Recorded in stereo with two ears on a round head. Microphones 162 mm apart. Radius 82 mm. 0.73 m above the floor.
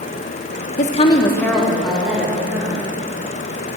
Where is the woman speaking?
45° left (ahead or behind), 0.7 m; by 2.8 s 10° right (ahead or behind), 3 m.